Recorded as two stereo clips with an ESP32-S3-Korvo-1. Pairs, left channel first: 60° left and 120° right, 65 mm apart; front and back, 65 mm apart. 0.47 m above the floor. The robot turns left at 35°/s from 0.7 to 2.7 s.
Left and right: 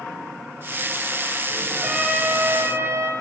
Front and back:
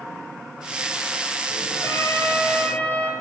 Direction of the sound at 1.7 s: 35° right.